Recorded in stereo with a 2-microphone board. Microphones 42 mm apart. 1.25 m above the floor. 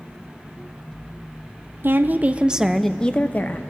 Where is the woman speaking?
55° right (ahead or behind), 0.7 m; by 3.6 s 45° left (ahead or behind), 0.7 m.